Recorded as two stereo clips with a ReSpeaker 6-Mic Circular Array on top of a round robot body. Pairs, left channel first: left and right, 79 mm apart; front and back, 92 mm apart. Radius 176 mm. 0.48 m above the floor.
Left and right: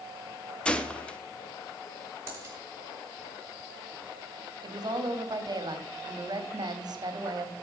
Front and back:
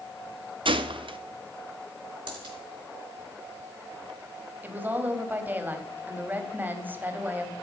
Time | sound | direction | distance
0.7 | a gunshot | 165° left | 1.1 m
2.3 | a dropped coin | 150° right | 3.5 m
4.6 | a woman speaking | 110° right | 2 m